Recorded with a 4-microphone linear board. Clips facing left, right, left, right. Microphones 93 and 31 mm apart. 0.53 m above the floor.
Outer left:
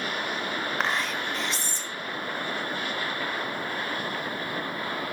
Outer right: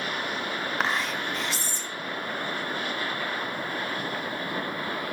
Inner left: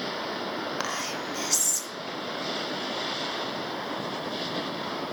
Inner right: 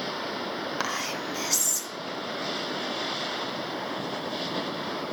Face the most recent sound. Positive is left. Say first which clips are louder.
# outer right 1 dB, inner right 1 dB
turn(degrees=-5)  # may be behind; listen again after turning